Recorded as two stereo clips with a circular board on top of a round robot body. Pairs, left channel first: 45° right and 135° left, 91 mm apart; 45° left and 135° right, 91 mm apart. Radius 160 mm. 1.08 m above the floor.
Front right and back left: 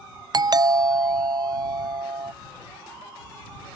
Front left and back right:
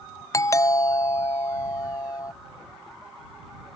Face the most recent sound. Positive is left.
turn(degrees=95)